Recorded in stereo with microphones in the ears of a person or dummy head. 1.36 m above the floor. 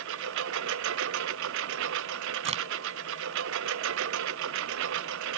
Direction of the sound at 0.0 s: 75° right (ahead or behind).